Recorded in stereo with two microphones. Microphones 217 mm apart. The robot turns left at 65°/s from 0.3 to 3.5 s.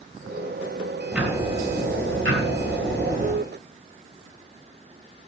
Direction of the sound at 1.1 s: Straight ahead.